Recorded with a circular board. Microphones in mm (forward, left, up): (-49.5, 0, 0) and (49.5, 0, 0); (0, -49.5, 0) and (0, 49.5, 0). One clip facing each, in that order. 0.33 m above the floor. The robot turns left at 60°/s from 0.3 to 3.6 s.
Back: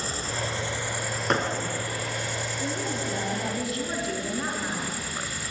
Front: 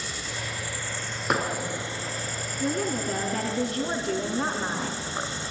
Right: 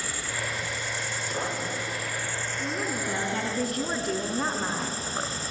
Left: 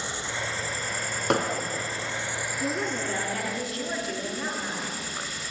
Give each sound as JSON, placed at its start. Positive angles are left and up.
{"t": 0.0, "sound": "an insect", "azimuth_deg": 150, "distance_m": 1.3}
{"t": 1.3, "sound": "hammering", "azimuth_deg": 85, "distance_m": 3.5}
{"t": 2.6, "sound": "a woman speaking", "azimuth_deg": 10, "distance_m": 3.5}